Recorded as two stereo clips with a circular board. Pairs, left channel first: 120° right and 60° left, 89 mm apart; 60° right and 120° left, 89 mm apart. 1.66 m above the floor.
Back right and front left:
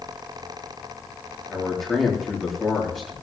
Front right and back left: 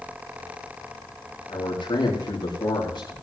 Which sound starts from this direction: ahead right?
A man speaking, at 1.5 s.